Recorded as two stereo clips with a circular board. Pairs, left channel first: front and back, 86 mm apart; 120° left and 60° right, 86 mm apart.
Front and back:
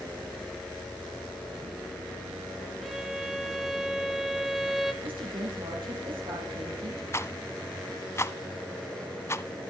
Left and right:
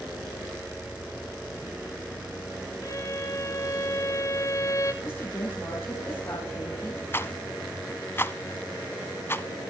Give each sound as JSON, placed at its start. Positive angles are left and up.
{"t": 2.8, "sound": "a violin", "azimuth_deg": 95, "distance_m": 1.2}
{"t": 5.0, "sound": "a woman speaking", "azimuth_deg": -175, "distance_m": 5.5}
{"t": 7.1, "sound": "a rattle", "azimuth_deg": 60, "distance_m": 0.5}